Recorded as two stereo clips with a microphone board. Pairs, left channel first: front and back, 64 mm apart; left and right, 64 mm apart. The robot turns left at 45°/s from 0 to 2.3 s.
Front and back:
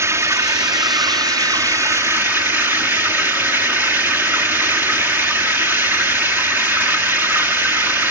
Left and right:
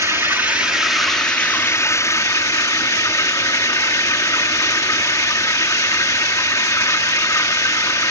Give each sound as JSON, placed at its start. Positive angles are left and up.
{"t": 0.0, "sound": "running water", "azimuth_deg": -135, "distance_m": 0.9}